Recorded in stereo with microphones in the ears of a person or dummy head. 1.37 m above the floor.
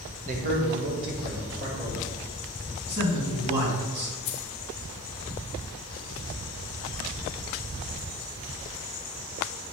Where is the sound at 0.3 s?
40° right (ahead or behind), 1.3 m; by 2.1 s 55° right (ahead or behind), 3.5 m.